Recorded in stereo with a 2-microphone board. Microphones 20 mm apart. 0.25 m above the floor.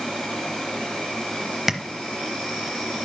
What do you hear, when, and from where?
0.0 s an insect: 65° left (ahead or behind), 5.5 m
1.7 s tapping: 5° right (ahead or behind), 0.9 m